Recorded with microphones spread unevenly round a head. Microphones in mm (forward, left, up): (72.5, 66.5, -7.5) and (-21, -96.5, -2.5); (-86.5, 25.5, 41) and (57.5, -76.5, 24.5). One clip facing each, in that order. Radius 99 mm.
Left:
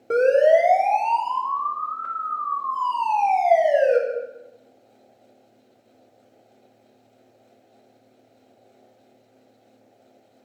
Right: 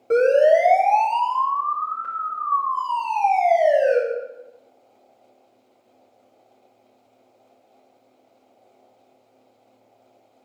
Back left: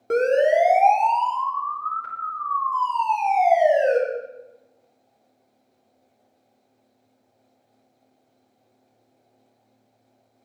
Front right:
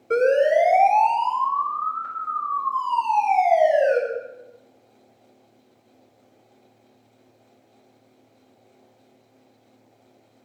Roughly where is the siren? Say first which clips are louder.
Right 1 dB, front right 1 dB; behind left.